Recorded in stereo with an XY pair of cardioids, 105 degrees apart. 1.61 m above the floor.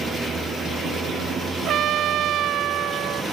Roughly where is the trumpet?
Right.